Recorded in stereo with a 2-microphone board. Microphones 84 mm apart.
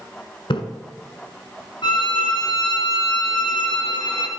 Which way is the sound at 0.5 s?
85° left.